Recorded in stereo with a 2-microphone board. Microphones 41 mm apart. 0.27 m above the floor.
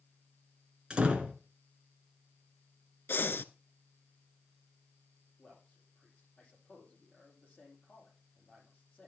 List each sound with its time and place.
0.9 s a door slam: 25° right (ahead or behind), 2 m
3.1 s breathing: 80° left, 0.5 m
5.4 s a man speaking: 25° left (ahead or behind), 9 m